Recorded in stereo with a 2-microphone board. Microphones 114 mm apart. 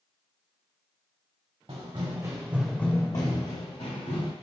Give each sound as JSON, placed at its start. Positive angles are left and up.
{"t": 1.7, "sound": "running footsteps", "side_deg": -55, "distance_m": 1.2}